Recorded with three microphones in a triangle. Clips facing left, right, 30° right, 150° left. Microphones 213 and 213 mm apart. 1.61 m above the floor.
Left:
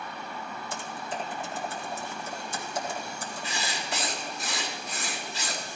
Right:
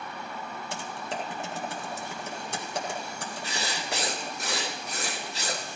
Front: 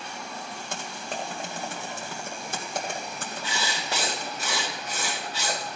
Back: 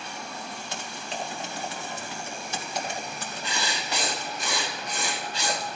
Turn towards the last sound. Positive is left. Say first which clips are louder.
# right 1 dB, even
turn(degrees=-115)